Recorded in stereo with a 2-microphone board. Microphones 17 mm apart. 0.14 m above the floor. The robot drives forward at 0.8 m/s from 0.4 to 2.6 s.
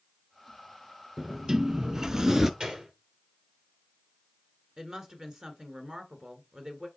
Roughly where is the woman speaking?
Right.